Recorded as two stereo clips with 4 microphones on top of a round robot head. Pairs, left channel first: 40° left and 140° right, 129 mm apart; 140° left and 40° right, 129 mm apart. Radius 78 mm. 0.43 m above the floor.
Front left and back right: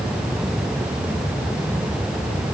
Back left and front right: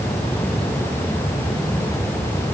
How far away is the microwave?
No microwave in this recording.